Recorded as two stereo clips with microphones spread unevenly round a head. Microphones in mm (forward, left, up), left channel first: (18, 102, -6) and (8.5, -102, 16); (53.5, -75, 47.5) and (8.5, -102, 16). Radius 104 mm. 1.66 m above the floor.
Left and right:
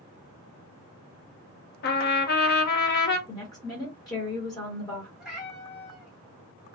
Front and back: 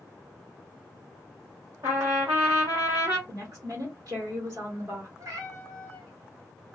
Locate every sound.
1.8 s a trumpet: 130° left, 0.5 m
3.3 s a woman speaking: 165° left, 1.0 m
5.2 s a cat meowing: 170° right, 1.1 m